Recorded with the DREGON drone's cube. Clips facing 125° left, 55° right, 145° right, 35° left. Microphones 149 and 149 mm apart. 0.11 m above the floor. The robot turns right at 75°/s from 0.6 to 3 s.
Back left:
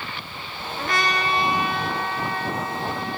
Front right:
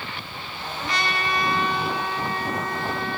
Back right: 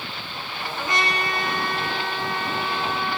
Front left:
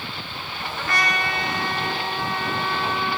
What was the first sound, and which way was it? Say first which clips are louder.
A trumpet: back left 3 dB, even; 135° left.